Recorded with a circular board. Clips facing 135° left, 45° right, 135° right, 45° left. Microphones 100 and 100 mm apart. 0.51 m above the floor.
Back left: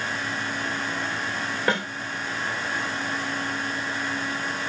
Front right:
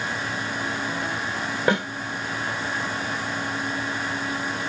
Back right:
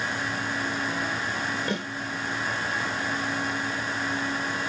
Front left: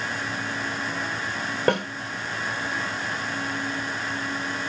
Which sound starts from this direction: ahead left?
A snare drum, at 1.7 s.